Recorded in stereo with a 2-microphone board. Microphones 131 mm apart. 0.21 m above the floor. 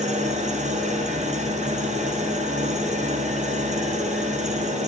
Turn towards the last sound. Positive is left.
turn(degrees=-65)  # may be behind; listen again after turning